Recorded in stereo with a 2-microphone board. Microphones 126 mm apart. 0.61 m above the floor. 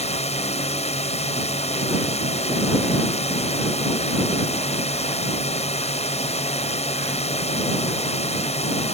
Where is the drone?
55° left (ahead or behind).